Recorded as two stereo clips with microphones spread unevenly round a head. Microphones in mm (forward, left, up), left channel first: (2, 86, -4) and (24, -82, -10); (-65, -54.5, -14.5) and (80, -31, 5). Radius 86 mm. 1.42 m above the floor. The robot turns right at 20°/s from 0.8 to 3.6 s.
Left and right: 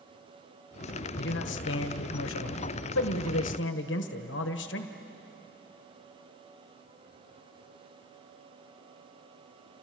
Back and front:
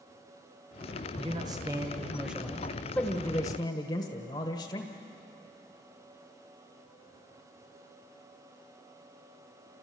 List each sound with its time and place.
1.2 s a man speaking: 75° left, 1.4 m; by 4.9 s 125° left, 1.4 m